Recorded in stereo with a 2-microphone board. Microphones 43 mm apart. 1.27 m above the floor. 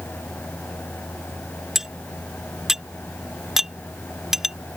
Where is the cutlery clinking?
10° right (ahead or behind).